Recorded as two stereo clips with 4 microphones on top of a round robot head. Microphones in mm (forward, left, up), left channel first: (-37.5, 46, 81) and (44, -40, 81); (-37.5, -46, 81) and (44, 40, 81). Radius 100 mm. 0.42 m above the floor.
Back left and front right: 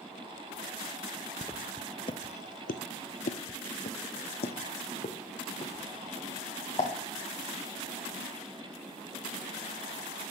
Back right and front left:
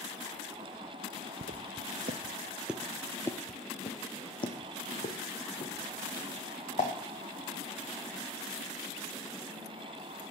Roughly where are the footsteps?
Ahead left.